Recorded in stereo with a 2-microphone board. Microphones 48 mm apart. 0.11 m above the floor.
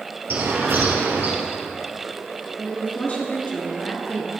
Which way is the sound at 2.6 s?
30° left (ahead or behind).